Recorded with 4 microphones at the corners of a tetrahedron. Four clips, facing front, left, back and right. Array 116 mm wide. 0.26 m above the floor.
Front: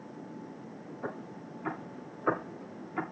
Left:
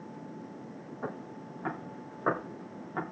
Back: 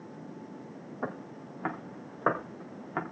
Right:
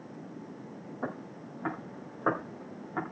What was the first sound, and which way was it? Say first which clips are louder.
Footsteps: right 1 dB, back 3 dB; 160° right.